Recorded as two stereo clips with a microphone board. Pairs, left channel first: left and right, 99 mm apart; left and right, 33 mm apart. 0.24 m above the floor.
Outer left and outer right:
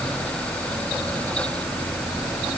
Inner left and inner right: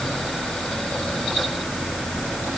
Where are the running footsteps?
I don't hear running footsteps.